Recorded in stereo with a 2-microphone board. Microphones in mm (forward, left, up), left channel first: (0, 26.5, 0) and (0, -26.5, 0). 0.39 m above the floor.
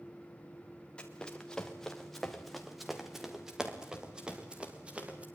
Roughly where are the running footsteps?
Centre.